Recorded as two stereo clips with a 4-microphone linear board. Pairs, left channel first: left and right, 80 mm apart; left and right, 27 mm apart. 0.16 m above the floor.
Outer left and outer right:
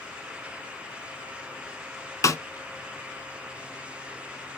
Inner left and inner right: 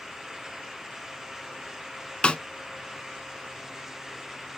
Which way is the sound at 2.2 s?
40° left (ahead or behind).